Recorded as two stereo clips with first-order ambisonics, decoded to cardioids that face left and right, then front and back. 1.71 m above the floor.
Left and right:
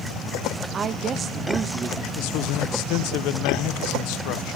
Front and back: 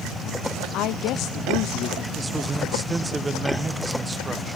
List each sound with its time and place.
0.7 s a woman speaking: 30° right, 0.5 m
2.1 s a man speaking: 105° left, 1.0 m